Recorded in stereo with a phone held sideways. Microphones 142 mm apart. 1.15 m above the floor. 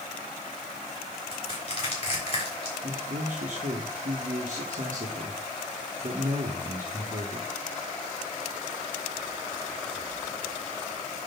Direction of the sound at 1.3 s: 45° left (ahead or behind).